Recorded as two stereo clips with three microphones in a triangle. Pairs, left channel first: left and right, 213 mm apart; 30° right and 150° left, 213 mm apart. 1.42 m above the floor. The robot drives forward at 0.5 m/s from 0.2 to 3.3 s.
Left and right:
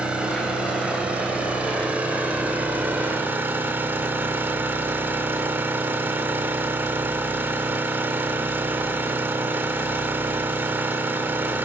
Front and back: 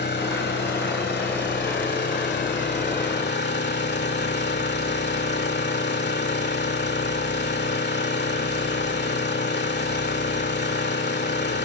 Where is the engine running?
5° right, 3.5 m; by 11.7 s 10° right, 1.9 m.